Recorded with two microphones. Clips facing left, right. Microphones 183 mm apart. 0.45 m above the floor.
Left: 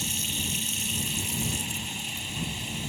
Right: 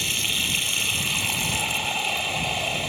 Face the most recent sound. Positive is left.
turn(degrees=-75)  # may be behind; listen again after turning